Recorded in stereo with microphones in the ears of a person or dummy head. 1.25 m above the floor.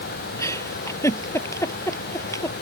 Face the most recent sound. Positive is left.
turn(degrees=15)  # may be behind; listen again after turning